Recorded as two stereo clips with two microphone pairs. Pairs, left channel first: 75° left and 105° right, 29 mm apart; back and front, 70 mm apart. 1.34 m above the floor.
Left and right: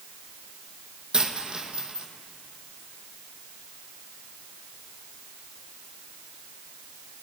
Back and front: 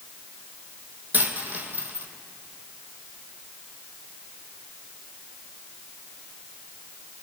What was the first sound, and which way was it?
A dropped coin, 60° right.